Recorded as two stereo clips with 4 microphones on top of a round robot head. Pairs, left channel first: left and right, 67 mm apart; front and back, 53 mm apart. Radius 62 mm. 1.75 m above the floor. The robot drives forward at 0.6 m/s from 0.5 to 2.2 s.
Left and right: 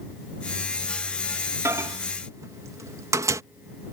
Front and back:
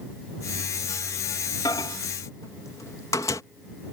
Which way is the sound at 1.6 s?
40° right.